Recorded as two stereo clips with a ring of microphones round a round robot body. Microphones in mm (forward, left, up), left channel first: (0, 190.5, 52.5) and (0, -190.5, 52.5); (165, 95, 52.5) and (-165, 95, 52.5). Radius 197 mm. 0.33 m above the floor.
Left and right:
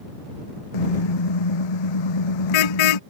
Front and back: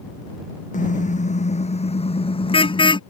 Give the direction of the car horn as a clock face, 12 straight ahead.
10 o'clock.